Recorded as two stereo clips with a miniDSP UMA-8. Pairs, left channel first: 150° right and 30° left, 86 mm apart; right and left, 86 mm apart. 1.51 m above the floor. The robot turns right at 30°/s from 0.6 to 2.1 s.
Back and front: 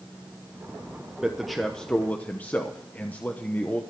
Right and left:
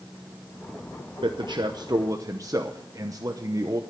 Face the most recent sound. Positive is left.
turn(degrees=140)